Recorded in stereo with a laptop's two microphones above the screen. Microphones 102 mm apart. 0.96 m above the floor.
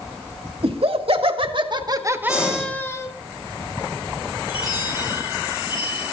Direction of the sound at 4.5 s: 40° left (ahead or behind).